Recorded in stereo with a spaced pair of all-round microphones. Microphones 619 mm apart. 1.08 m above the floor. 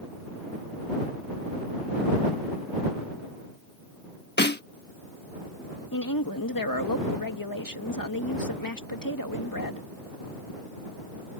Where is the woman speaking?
30° left (ahead or behind).